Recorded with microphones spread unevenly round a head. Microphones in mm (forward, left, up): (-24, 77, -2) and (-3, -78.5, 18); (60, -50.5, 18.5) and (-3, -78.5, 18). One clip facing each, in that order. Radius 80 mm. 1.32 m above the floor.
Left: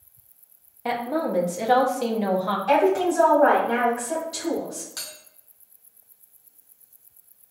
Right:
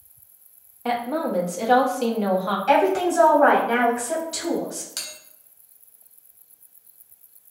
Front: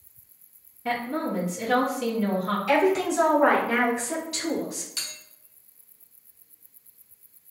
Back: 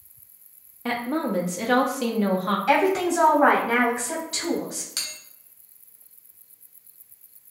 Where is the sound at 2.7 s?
140° right, 2.0 m.